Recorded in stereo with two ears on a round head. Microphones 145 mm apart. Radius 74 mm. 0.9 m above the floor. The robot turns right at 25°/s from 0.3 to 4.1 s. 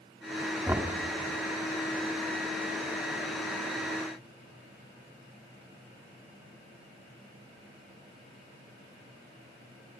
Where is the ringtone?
No ringtone in this recording.